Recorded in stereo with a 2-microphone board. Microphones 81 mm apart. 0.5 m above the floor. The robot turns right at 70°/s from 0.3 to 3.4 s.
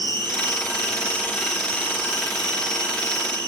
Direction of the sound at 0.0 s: 85° right.